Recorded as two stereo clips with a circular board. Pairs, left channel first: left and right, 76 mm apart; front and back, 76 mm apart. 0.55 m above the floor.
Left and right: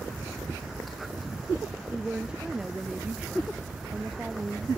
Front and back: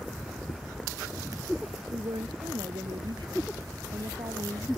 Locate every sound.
1.9 s a woman speaking: 170° right